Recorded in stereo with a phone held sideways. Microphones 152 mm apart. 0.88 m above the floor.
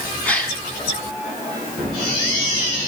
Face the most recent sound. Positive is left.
turn(degrees=10)  # may be behind; listen again after turning